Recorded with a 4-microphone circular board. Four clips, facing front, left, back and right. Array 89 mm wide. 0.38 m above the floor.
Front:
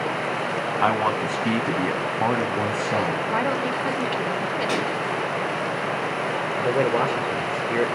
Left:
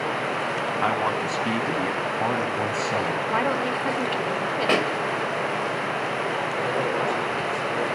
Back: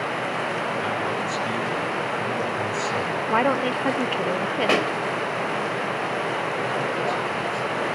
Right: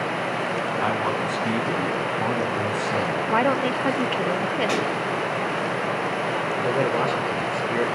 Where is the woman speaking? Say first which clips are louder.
Right 5 dB, back 2 dB; 140° right, 1.0 m.